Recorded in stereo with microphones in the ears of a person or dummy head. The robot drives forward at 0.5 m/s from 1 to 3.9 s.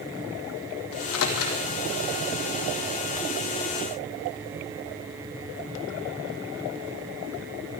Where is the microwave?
75° left (ahead or behind), 1.8 m; by 1.6 s 70° left (ahead or behind), 1.8 m.